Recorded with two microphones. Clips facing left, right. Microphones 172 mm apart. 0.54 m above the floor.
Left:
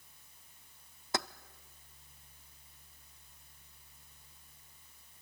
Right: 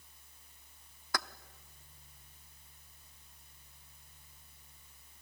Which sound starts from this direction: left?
Keys jangling, at 1.1 s.